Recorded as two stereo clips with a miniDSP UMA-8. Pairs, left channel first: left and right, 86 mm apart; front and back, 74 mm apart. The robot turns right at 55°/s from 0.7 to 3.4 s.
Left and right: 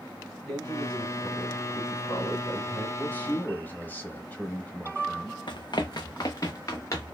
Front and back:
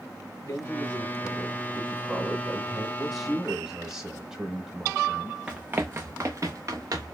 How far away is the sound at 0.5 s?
About 1.5 m.